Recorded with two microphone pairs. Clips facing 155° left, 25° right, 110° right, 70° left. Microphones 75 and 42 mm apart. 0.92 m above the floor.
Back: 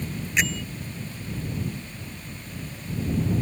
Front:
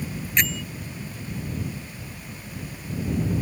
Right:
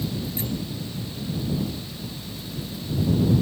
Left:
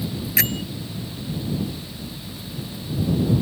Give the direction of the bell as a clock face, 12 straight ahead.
10 o'clock.